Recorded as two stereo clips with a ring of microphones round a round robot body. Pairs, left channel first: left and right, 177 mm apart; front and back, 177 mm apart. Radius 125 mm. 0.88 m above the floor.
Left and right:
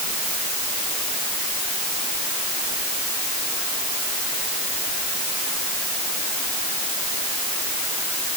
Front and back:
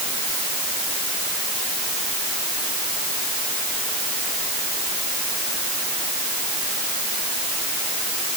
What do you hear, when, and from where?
Only background noise.